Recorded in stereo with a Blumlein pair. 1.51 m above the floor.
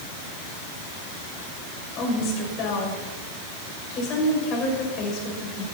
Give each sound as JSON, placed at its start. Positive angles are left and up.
{"t": 2.0, "sound": "a woman speaking", "azimuth_deg": 35, "distance_m": 6.5}